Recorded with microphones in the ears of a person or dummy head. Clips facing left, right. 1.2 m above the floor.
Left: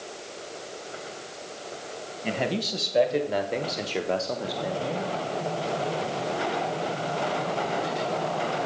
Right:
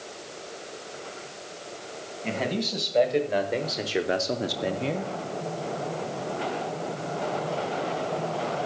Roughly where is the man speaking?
Centre.